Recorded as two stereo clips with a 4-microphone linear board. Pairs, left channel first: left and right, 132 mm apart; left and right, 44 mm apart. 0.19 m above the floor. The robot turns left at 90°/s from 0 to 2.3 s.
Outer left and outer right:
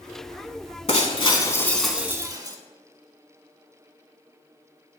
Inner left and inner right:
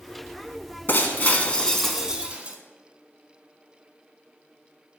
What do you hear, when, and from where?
0.9 s breaking glass: 90° left, 0.8 m; by 2.6 s 40° right, 0.8 m